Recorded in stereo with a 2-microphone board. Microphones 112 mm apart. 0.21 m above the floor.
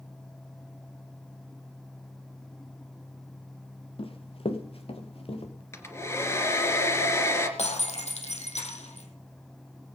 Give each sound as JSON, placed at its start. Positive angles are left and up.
{"t": 4.0, "sound": "running footsteps", "side_deg": 55, "distance_m": 1.5}
{"t": 5.7, "sound": "a hair dryer", "side_deg": 25, "distance_m": 2.0}
{"t": 7.6, "sound": "breaking glass", "side_deg": 85, "distance_m": 3.0}